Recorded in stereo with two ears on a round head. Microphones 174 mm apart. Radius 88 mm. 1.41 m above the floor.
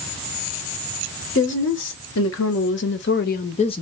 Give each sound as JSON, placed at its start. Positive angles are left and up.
{"t": 1.4, "sound": "a woman speaking", "side_deg": 65, "distance_m": 1.5}